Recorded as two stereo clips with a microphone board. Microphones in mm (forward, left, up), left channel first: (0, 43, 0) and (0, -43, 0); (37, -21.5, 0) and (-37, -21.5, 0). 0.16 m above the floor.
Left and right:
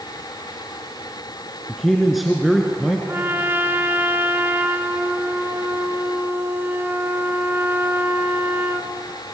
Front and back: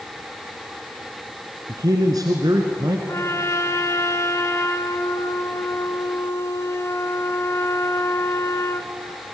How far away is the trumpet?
About 1.3 m.